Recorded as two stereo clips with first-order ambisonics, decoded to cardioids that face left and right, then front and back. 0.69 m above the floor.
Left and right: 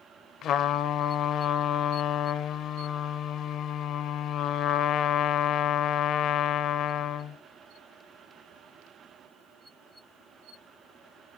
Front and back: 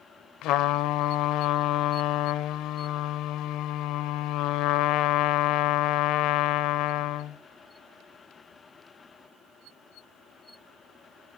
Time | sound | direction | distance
0.4 | a trumpet | 35° left | 0.9 m